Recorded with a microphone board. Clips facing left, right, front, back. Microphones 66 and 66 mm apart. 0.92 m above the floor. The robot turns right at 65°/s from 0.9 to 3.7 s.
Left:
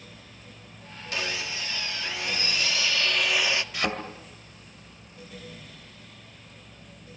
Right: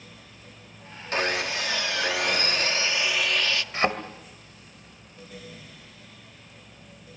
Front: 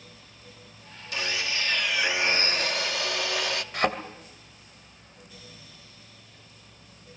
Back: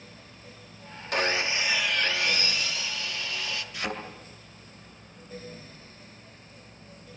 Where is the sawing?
140° right, 0.9 m; by 3.6 s 25° left, 0.9 m.